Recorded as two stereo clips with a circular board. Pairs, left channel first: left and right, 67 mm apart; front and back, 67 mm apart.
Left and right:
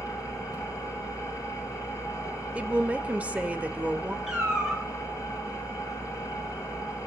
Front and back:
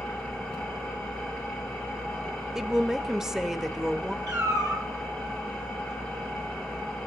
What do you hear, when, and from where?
0.0 s an engine running: 80° left, 8 m
2.5 s a woman speaking: 110° right, 0.8 m
4.3 s a cat meowing: 170° right, 5 m